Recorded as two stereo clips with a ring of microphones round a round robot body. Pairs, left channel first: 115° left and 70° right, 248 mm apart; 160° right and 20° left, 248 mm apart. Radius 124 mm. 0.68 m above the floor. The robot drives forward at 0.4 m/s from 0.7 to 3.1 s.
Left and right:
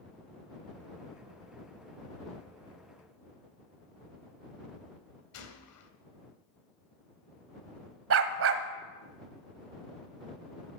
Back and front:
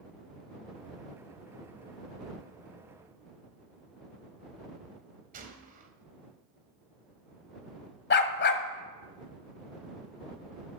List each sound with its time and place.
5.3 s a gunshot: 80° left, 1.8 m
8.1 s a dog barking: 105° right, 1.4 m